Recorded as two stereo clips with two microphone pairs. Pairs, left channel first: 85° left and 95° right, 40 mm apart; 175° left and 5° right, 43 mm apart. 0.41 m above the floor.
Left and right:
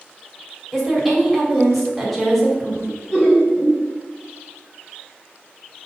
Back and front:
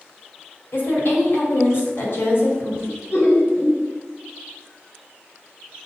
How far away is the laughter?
About 1.8 m.